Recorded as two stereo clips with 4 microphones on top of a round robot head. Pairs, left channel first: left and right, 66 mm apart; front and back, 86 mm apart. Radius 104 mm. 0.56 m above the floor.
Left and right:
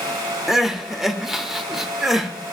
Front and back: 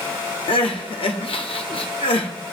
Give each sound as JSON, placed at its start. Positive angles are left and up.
{"t": 0.5, "sound": "crying", "azimuth_deg": -5, "distance_m": 0.9}